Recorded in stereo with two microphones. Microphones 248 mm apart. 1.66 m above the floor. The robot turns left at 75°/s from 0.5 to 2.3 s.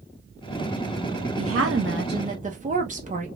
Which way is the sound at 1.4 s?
75° right.